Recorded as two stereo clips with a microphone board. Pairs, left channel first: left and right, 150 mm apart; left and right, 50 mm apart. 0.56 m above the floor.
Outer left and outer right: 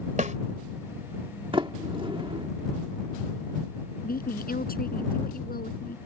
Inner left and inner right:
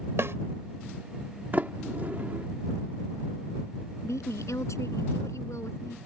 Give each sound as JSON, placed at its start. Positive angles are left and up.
{"t": 0.2, "sound": "a snare drum", "side_deg": -55}
{"t": 1.5, "sound": "a sliding door", "side_deg": -35}
{"t": 4.0, "sound": "a woman speaking", "side_deg": 85}